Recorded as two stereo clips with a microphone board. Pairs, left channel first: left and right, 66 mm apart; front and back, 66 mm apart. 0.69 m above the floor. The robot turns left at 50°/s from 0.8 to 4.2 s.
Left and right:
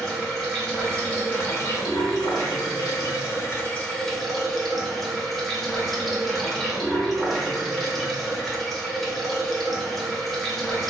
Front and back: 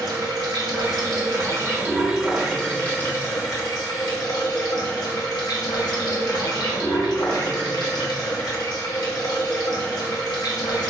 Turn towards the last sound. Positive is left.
turn(degrees=5)